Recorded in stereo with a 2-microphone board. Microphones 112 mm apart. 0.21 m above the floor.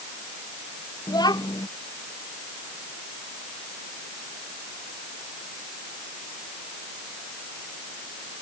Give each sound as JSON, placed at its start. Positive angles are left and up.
{"t": 1.1, "sound": "a child speaking", "side_deg": 35}